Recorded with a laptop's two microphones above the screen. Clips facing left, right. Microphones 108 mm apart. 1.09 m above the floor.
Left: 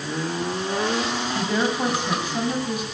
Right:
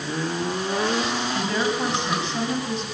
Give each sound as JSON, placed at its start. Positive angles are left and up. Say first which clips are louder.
{"t": 1.4, "sound": "a woman speaking", "louder": "left 2 dB", "side_deg": 10, "distance_m": 8.0}